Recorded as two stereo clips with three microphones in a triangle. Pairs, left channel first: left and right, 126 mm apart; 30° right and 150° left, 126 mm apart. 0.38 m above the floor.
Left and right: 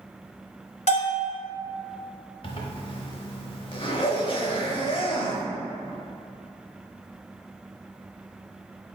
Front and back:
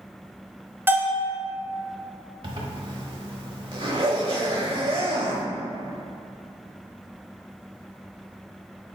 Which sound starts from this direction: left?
A bell, at 0.9 s.